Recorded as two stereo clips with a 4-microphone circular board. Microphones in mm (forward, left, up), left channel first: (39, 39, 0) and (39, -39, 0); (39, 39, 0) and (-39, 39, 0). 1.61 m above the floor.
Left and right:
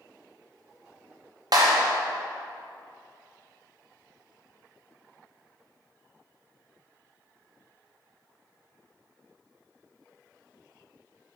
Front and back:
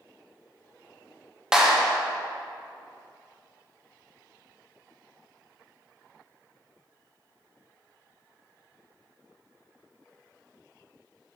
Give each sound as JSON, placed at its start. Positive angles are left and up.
{"t": 1.5, "sound": "a clap", "azimuth_deg": -100, "distance_m": 1.0}